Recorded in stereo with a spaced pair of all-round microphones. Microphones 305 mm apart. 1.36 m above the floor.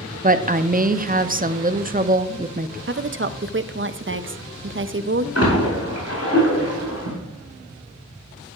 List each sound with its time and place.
0.2 s a woman speaking: 30° right (ahead or behind), 0.5 m
2.9 s a woman speaking: 40° right (ahead or behind), 0.5 m
5.3 s a splash: 55° left (ahead or behind), 4.5 m